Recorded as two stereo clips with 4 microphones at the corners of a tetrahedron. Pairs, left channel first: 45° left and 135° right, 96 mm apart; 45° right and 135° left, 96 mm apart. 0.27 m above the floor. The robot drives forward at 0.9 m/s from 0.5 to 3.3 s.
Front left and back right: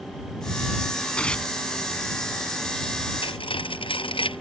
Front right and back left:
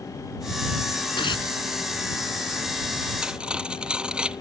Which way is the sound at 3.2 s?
55° left.